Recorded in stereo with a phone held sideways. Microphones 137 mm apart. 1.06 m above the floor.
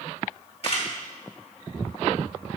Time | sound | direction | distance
0.6 | a camera shutter | 45° left (ahead or behind) | 2 m